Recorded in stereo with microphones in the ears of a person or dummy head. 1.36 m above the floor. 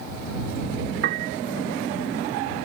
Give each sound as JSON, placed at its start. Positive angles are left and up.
{"t": 1.0, "sound": "a piano", "side_deg": -60}